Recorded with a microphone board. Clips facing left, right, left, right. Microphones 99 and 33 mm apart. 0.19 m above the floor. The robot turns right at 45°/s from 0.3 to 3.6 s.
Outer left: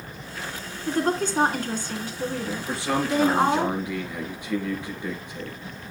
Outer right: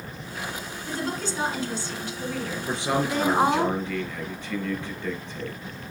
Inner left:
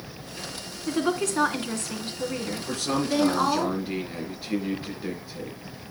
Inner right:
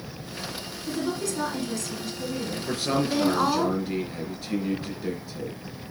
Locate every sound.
0.9 s a woman speaking: 70° left, 2 m; by 3.7 s 165° right, 2 m
2.7 s a man speaking: 30° right, 4 m; by 5.6 s 15° left, 4 m